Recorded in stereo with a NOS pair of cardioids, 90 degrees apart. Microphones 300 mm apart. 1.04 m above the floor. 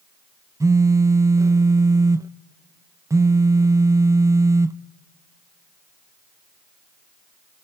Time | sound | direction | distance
0.6 | a phone buzzing | 10° right | 0.5 m